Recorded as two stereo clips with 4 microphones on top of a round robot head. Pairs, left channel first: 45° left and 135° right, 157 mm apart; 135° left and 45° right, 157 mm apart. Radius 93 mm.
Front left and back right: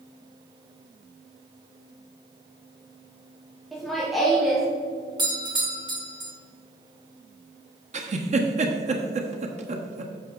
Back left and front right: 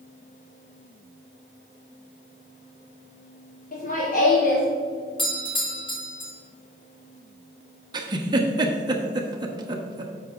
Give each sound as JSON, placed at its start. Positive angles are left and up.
{"t": 3.7, "sound": "laughter", "azimuth_deg": 135, "distance_m": 1.7}
{"t": 5.2, "sound": "a doorbell", "azimuth_deg": 175, "distance_m": 2.0}
{"t": 7.9, "sound": "a giggle", "azimuth_deg": -100, "distance_m": 1.2}